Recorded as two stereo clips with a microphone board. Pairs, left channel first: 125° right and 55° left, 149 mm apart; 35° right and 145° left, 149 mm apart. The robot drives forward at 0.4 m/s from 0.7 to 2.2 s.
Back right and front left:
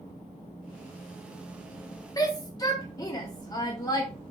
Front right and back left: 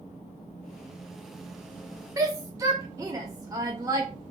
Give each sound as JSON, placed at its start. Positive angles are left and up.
{"t": 2.2, "sound": "a shout", "azimuth_deg": -165, "distance_m": 0.6}